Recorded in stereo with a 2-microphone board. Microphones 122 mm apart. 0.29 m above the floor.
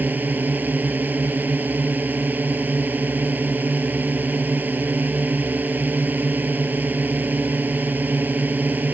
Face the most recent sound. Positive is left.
turn(degrees=-15)  # may be behind; listen again after turning